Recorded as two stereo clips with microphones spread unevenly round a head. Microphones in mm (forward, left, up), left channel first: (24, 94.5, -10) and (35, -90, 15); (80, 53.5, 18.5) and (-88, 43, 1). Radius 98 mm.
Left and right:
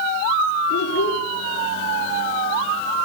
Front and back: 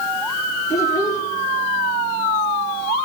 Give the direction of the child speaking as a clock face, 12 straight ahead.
10 o'clock.